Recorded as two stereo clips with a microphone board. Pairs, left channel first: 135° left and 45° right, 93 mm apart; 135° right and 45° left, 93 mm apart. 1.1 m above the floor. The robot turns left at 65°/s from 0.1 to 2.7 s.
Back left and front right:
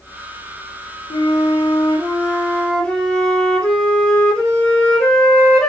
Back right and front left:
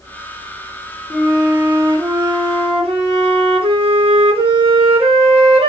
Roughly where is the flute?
Behind.